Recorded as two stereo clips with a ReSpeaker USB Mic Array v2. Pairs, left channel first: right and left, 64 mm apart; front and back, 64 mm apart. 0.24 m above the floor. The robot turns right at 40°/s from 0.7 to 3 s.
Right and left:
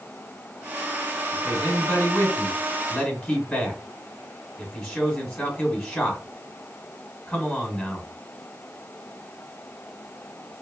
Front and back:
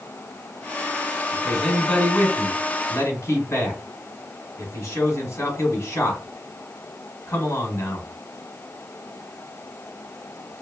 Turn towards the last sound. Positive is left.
turn(degrees=-10)